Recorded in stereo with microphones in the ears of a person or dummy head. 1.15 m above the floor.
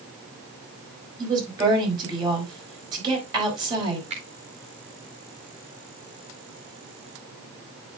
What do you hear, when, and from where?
1.2 s a woman speaking: 30° right (ahead or behind), 5 m
4.1 s a finger snap: 35° right (ahead or behind), 2 m